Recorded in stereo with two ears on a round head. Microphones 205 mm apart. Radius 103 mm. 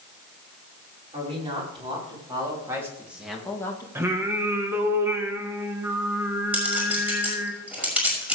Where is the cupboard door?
I don't hear a cupboard door.